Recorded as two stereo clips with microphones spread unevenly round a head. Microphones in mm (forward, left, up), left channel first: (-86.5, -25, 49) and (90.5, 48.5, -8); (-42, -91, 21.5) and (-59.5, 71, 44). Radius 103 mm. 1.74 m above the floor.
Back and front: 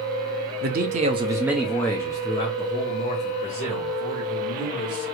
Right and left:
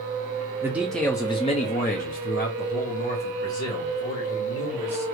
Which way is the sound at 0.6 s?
50° left.